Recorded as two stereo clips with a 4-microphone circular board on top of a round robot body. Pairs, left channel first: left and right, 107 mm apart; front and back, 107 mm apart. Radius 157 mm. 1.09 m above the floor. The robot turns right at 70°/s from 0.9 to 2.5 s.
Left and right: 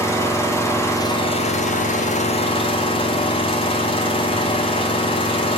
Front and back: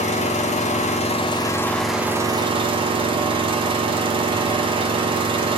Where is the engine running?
20° left, 1.6 m; by 5.6 s 135° left, 1.6 m.